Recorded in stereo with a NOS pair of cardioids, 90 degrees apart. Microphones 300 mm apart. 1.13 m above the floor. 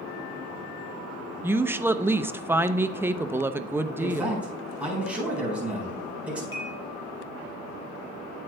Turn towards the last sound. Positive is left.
turn(degrees=45)